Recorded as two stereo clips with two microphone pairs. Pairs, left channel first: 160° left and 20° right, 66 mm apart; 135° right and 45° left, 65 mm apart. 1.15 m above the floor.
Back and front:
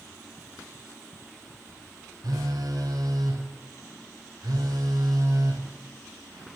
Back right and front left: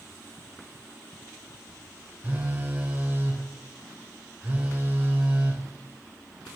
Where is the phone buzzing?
20° right, 2.5 m.